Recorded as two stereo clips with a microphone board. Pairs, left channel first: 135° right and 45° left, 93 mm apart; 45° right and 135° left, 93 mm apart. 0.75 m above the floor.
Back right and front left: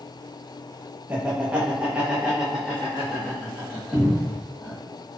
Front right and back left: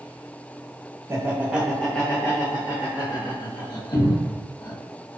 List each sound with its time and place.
1.1 s laughter: 105° left, 0.8 m; by 4.8 s 50° right, 1.7 m
3.9 s a cupboard door: 50° right, 1.0 m